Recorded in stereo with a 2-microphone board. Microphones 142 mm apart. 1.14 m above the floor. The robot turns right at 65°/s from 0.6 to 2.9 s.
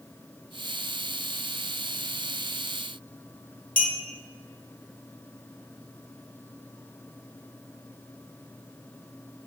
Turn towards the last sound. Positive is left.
turn(degrees=75)  # may be behind; listen again after turning